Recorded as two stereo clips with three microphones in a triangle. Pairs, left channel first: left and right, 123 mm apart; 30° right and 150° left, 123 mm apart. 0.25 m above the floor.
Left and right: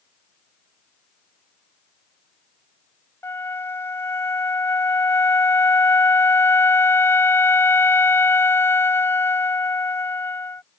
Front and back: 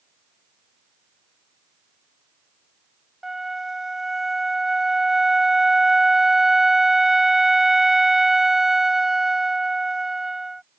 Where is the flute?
65° left.